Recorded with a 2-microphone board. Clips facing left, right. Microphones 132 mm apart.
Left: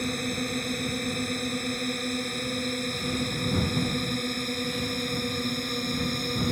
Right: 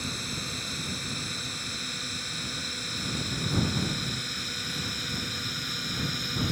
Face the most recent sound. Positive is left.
turn(degrees=50)  # may be behind; listen again after turning